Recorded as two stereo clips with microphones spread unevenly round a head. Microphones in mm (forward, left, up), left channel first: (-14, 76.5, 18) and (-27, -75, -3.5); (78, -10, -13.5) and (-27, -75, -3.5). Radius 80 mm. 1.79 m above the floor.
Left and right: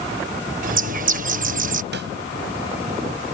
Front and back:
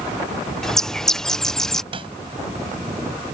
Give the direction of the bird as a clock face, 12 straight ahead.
2 o'clock.